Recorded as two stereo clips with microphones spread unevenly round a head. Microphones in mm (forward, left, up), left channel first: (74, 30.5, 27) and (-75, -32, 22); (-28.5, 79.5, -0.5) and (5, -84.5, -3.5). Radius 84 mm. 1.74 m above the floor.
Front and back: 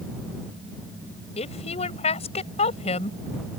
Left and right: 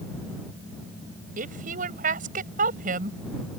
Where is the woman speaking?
30° right.